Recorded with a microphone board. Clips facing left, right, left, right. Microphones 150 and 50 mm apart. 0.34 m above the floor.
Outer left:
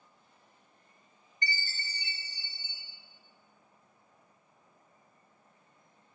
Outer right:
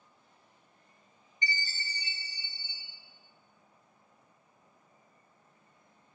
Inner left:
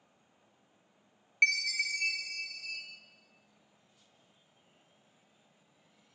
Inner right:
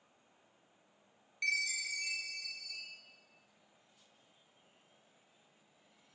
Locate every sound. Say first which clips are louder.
1.4 s a chime: outer right 1 dB, inner left 7 dB; 80° left, 1.5 m